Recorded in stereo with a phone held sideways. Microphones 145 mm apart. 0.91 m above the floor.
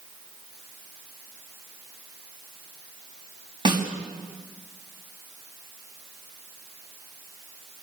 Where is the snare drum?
30° right (ahead or behind), 5 m.